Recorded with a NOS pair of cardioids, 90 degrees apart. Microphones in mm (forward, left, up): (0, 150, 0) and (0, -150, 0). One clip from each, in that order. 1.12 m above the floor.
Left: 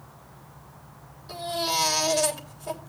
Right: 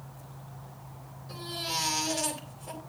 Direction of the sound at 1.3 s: 60° left.